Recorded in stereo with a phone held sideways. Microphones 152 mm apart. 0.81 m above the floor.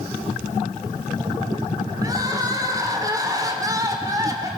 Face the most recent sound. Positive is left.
turn(degrees=-25)  # may be behind; listen again after turning